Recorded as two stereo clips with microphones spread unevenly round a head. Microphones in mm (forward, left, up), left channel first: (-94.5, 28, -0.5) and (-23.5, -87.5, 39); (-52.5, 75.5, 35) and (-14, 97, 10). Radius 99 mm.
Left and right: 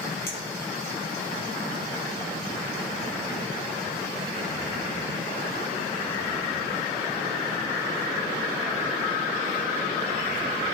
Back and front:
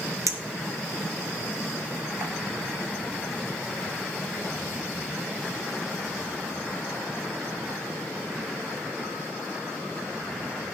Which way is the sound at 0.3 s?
40° left.